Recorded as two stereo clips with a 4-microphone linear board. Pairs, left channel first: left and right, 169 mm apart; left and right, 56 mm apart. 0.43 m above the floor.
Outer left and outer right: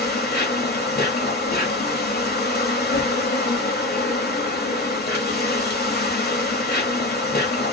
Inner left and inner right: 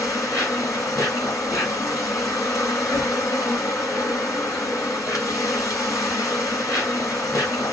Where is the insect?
75° left (ahead or behind), 3 m.